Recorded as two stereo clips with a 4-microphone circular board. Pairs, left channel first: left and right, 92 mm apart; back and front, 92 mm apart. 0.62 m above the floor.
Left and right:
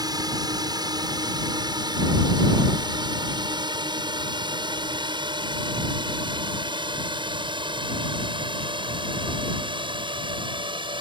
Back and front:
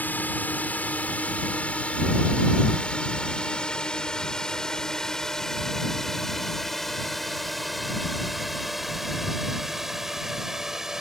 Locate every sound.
0.0 s a drone: 115° right; by 11.0 s 85° right